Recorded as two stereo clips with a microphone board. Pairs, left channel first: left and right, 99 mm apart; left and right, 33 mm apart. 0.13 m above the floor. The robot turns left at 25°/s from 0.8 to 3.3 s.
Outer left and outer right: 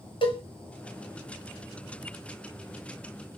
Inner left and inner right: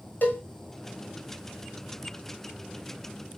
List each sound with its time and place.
0.2 s a cowbell: 55° left (ahead or behind), 1.6 m